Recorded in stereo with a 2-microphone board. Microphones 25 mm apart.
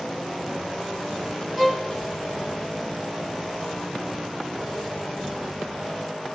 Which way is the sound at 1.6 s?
15° right (ahead or behind).